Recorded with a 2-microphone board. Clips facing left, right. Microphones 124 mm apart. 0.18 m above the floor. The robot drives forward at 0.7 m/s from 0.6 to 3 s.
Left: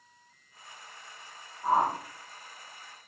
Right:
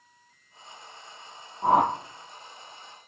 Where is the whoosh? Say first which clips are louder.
Right 5 dB; 80° right, 1.7 m; by 1.9 s 75° right (ahead or behind), 1.7 m.